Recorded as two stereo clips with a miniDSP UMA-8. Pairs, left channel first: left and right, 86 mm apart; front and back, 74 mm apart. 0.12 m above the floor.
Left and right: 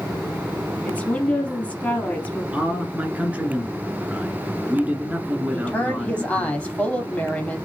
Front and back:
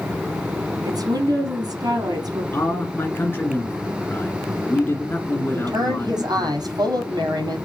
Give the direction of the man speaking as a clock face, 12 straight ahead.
1 o'clock.